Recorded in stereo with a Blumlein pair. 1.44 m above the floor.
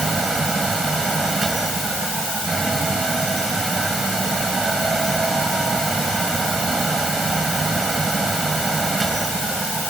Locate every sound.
0.0 s a fan: 15° right